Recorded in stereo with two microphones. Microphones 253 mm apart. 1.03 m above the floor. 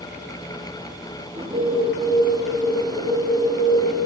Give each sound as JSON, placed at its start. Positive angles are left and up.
{"t": 1.4, "sound": "a bird", "side_deg": -25, "distance_m": 0.9}